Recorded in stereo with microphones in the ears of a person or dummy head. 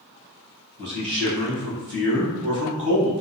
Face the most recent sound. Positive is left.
turn(degrees=-25)  # may be behind; listen again after turning